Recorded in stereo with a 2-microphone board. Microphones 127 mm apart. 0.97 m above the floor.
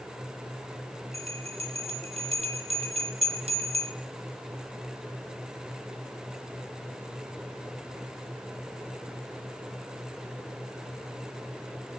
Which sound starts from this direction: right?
A bell, at 1.1 s.